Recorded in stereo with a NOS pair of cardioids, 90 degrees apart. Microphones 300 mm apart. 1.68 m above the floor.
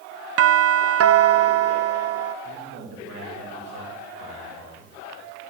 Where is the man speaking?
55° right, 3 m.